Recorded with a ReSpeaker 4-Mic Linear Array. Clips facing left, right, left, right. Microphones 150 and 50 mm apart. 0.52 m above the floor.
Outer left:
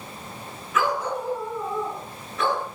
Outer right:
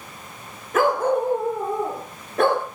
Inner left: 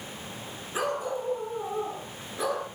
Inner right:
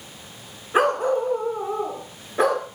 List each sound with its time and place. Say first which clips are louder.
0.7 s a dog barking: outer right 6 dB, inner right 10 dB; 50° right (ahead or behind), 3 m; by 2.6 s 55° right (ahead or behind), 4 m